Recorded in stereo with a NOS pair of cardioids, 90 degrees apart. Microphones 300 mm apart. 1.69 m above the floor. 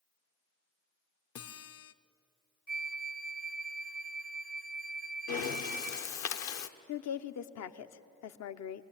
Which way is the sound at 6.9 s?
65° left.